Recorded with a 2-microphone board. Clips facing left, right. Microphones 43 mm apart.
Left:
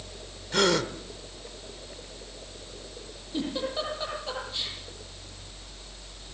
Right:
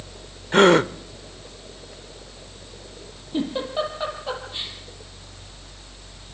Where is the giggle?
25° right (ahead or behind), 7 m.